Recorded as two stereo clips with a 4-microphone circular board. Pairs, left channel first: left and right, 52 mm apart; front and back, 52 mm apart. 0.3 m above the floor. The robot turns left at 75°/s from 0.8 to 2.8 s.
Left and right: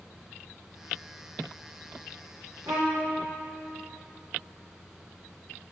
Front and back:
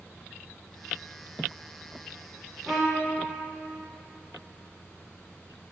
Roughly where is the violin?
Right.